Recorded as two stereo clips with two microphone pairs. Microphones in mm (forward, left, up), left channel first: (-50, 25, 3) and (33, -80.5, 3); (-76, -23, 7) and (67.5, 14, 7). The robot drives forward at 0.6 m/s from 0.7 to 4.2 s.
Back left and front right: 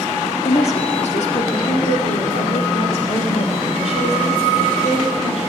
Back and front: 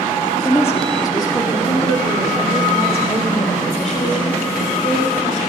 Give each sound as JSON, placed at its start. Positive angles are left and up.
{"t": 0.5, "sound": "a woman speaking", "azimuth_deg": 125, "distance_m": 1.5}